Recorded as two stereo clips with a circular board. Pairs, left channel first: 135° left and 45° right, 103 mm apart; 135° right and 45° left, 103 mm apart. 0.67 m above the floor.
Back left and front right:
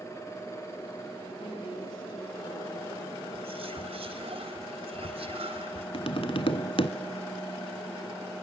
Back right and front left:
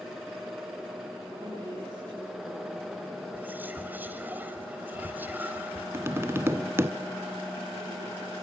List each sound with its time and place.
1.4 s a woman speaking: 110° left, 7.5 m
3.3 s whispering: 25° right, 4 m
5.9 s tapping: 110° left, 1.4 m